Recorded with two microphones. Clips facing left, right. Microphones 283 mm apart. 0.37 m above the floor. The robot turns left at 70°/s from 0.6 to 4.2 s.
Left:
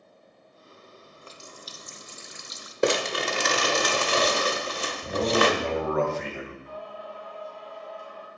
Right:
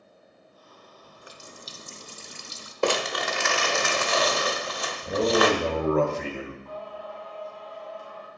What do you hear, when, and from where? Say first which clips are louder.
1.0 s a running tap: right 2 dB; 5° right, 0.6 m; by 2.7 s 125° right, 0.6 m
2.8 s crumpling: left 2 dB; 150° left, 0.7 m; by 5.5 s 55° left, 0.7 m
5.1 s a man speaking: right 2 dB; 40° right (ahead or behind), 1.3 m
6.7 s singing: right 1 dB; 70° right (ahead or behind), 3 m